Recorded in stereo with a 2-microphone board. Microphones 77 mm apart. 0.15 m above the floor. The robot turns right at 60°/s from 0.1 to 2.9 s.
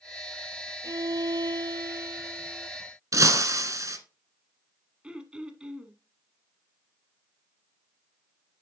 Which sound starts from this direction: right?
Breaking glass, at 3.1 s.